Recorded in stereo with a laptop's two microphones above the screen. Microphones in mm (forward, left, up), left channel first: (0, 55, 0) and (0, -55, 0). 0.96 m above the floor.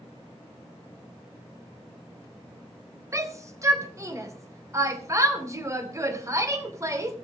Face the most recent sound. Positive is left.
turn(degrees=-30)  # may be behind; listen again after turning